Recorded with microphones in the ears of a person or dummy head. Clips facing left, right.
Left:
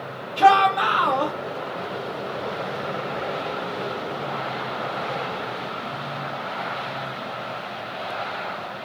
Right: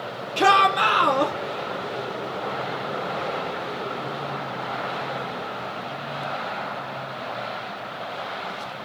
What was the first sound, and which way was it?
A shout, 35° right (ahead or behind).